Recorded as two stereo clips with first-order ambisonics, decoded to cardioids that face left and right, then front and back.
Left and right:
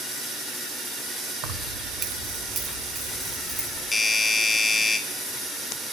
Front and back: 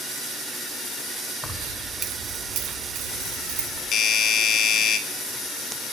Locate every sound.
1.4 s keys jangling: 85° right, 0.9 m; by 3.8 s 165° right, 3 m
3.9 s a doorbell: 10° left, 1.1 m